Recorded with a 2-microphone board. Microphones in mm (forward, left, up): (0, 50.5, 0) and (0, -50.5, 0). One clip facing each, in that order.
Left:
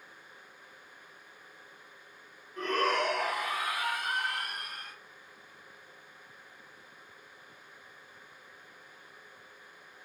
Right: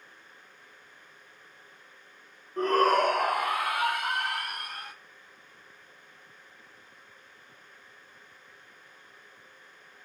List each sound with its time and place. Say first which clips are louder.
2.6 s a shout: right 7 dB; 35° right (ahead or behind), 0.6 m; by 4.9 s 70° right (ahead or behind), 1.6 m